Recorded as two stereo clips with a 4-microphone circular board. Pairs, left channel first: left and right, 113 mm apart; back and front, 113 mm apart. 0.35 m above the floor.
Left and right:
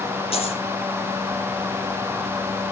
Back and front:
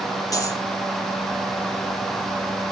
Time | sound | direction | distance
0.3 | a dropped coin | 120° left | 4.5 m